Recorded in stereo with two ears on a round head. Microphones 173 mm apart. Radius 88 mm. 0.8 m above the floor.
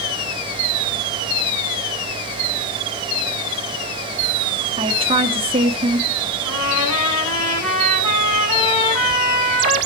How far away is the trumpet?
About 5.5 m.